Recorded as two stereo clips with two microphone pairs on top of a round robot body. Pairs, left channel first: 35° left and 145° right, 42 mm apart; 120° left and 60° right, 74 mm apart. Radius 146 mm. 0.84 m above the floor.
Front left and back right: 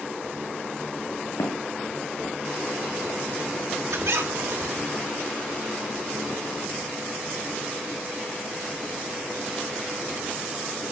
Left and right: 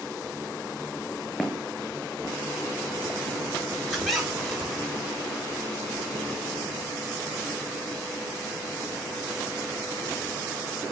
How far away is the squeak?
About 3.5 m.